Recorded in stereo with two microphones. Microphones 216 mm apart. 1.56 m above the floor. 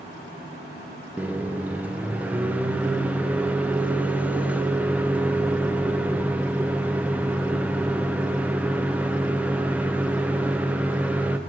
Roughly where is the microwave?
Centre.